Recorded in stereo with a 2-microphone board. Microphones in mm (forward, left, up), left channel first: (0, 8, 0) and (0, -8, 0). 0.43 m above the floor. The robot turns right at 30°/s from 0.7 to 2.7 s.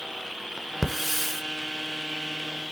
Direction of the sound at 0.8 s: 10° right (ahead or behind).